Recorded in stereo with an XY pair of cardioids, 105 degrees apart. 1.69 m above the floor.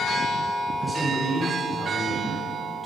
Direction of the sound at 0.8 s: 10° right.